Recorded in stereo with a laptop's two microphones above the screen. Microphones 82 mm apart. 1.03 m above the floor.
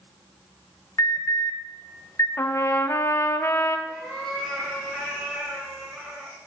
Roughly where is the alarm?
Left.